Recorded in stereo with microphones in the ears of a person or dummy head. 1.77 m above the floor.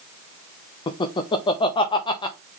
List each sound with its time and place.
0.9 s laughter: 25° left (ahead or behind), 0.9 m